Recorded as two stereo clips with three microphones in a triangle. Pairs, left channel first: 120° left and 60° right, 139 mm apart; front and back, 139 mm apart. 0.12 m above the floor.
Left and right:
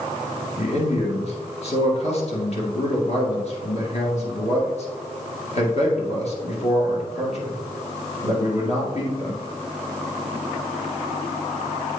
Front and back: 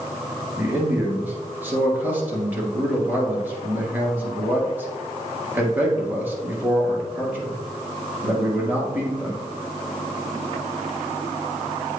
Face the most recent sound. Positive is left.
turn(degrees=105)